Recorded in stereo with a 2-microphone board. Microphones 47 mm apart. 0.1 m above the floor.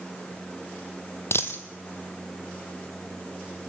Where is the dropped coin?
65° left (ahead or behind), 1.0 m.